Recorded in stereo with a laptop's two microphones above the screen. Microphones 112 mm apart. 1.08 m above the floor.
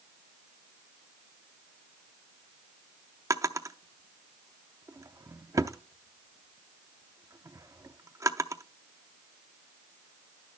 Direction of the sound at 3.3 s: 30° right (ahead or behind).